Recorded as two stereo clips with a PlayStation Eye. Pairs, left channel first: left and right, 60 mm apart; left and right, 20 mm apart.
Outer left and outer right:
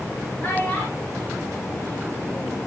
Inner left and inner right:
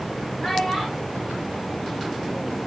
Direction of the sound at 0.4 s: 25° left (ahead or behind).